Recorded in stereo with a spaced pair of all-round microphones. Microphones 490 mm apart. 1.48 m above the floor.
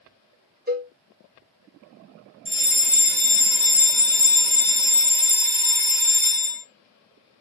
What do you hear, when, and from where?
0.7 s a cowbell: 20° right (ahead or behind), 0.6 m
2.5 s a fire alarm: 15° right (ahead or behind), 1.0 m